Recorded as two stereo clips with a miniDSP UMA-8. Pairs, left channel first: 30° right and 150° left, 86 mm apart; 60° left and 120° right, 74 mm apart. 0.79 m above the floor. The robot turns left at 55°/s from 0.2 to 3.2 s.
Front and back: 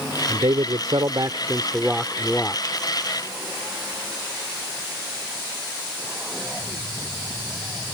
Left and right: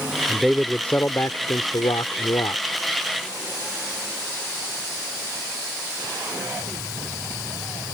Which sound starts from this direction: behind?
A man speaking, at 0.3 s.